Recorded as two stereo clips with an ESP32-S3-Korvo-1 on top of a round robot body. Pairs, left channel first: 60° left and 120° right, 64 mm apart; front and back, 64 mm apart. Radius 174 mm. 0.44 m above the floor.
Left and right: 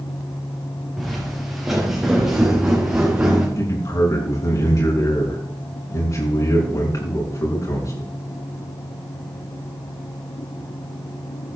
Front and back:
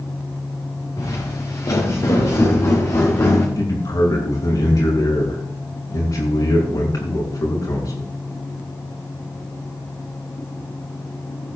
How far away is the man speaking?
About 5.5 m.